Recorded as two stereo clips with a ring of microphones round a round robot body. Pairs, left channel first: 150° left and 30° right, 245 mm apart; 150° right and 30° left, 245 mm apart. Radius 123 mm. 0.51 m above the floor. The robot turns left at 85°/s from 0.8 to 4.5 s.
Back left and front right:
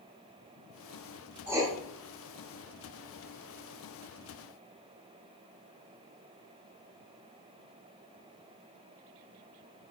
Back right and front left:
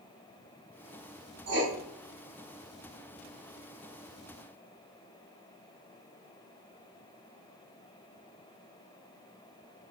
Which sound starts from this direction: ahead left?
Writing, at 1.5 s.